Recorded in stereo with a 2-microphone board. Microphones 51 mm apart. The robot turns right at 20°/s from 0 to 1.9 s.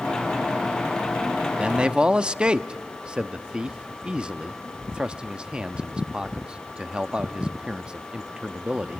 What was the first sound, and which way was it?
A man speaking, 20° right (ahead or behind).